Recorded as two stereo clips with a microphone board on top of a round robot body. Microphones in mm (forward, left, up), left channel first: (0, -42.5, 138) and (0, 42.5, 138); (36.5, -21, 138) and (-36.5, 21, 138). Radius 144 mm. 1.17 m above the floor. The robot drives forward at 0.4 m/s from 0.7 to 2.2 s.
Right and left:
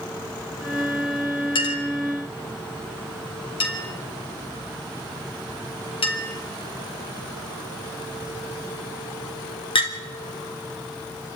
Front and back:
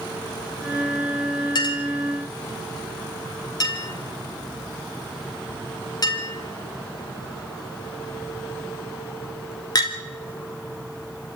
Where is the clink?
70° right, 2.5 m; by 9.9 s 75° right, 2.5 m.